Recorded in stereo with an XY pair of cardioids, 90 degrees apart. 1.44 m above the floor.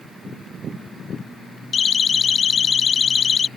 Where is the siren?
50° left.